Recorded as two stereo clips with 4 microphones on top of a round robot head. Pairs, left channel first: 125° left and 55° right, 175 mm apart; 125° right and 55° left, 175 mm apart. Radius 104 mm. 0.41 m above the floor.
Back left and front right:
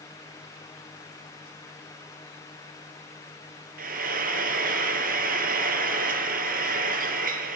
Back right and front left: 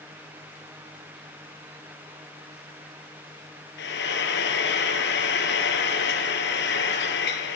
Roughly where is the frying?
Right.